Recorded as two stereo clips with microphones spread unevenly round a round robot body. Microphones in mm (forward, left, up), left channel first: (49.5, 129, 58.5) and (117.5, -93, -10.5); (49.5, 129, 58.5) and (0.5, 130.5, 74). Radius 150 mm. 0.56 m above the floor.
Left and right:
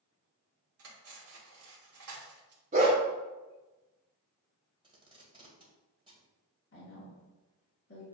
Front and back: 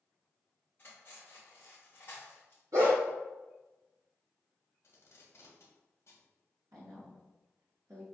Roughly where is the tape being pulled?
Ahead.